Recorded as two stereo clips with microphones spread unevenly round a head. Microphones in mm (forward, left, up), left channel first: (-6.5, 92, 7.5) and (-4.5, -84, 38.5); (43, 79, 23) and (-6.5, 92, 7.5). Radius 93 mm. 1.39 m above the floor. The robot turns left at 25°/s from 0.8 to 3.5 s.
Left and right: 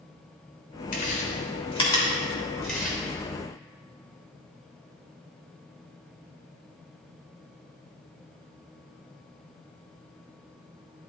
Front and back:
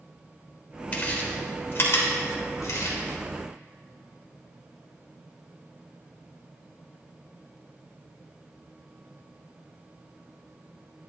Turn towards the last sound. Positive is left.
turn(degrees=-15)